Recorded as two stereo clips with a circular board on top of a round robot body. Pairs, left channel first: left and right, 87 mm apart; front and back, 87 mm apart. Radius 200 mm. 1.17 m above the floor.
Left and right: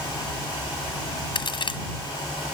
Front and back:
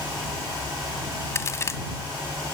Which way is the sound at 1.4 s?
60° left.